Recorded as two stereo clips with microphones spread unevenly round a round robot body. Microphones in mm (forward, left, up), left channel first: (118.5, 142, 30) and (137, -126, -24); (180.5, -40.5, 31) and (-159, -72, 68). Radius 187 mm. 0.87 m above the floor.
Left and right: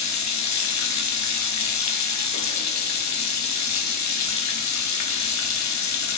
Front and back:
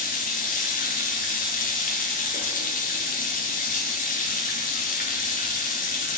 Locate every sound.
0.0 s running water: 70° left, 1.0 m